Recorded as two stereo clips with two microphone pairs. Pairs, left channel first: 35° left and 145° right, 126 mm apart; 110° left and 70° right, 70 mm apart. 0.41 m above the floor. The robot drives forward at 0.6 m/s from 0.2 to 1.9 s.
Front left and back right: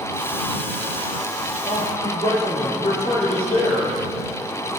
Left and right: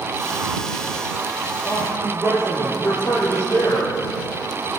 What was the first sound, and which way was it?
A man speaking, 60° left.